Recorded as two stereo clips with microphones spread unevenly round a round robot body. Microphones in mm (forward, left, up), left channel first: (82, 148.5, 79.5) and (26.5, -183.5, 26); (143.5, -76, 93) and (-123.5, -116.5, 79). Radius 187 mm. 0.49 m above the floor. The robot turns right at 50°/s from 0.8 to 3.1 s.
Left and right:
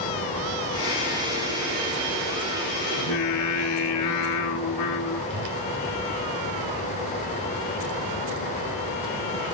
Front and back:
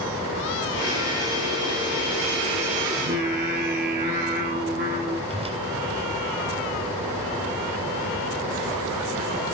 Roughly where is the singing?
Behind left.